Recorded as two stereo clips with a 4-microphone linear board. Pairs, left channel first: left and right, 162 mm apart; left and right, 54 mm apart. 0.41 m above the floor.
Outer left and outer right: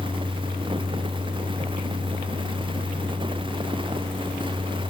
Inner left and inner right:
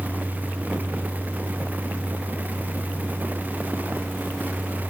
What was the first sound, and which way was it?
Only background noise.